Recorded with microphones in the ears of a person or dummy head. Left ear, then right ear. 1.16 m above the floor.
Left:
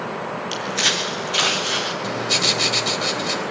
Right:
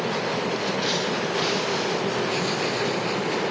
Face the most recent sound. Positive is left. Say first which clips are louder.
# left 5 dB
turn(degrees=45)  # may be behind; listen again after turning